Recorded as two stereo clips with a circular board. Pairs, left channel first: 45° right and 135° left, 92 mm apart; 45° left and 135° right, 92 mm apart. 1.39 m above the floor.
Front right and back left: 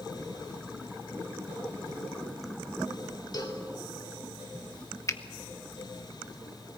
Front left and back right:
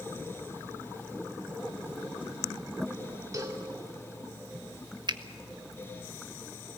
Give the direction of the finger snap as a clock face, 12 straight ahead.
3 o'clock.